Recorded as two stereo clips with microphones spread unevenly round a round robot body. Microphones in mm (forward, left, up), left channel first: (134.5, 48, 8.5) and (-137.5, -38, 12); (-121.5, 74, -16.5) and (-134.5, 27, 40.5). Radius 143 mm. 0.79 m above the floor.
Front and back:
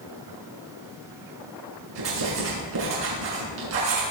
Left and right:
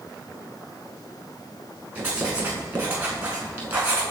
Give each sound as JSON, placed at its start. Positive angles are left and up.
{"t": 1.9, "sound": "writing", "azimuth_deg": -155, "distance_m": 6.0}